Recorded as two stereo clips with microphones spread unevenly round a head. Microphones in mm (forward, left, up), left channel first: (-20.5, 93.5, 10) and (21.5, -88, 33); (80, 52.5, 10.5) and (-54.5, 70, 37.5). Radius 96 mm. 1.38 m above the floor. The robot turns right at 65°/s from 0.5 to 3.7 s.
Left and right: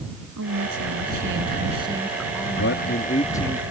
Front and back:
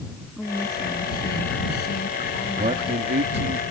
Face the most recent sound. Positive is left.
turn(degrees=-160)